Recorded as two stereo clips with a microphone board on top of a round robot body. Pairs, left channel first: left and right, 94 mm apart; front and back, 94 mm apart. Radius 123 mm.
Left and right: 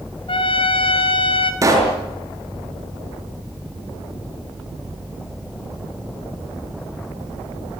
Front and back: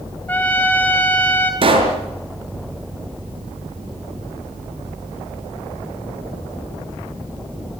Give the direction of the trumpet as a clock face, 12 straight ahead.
10 o'clock.